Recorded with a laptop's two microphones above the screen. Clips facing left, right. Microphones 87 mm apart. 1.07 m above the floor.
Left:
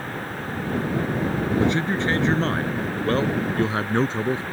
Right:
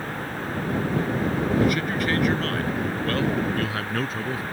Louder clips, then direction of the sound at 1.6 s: Left 1 dB; 30° left (ahead or behind).